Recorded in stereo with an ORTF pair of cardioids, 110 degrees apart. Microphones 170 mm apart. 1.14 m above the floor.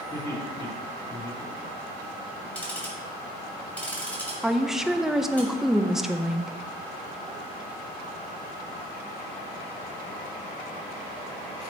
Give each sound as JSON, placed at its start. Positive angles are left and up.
{"t": 0.1, "sound": "laughter", "azimuth_deg": 20, "distance_m": 3.0}
{"t": 2.5, "sound": "ticking", "azimuth_deg": 10, "distance_m": 2.5}
{"t": 4.4, "sound": "a woman speaking", "azimuth_deg": 0, "distance_m": 0.6}